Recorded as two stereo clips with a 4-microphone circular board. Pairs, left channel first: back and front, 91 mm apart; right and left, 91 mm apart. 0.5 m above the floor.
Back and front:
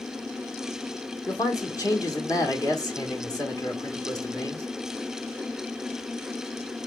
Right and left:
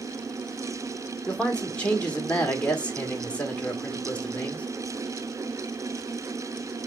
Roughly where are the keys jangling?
I don't hear keys jangling.